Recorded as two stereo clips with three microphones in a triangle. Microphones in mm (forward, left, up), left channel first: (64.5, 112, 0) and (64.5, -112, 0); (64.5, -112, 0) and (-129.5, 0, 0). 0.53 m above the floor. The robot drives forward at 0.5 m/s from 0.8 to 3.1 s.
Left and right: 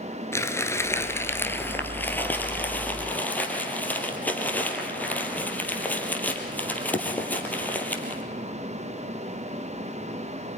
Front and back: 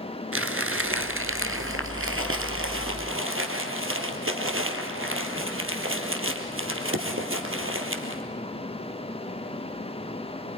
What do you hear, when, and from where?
0.3 s crumpling: 170° left, 1.6 m; by 8.2 s 175° left, 3 m